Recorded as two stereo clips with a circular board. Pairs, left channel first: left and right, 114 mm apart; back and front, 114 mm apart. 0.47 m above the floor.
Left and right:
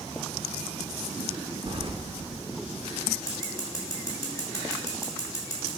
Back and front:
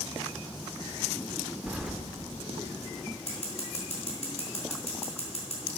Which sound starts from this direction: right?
Keys jangling, at 1.7 s.